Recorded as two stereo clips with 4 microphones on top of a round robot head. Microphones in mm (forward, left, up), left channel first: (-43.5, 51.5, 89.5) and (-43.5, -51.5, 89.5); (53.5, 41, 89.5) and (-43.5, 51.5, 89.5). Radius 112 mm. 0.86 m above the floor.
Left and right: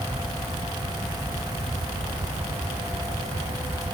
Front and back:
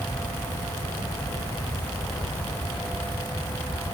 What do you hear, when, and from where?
Only background noise.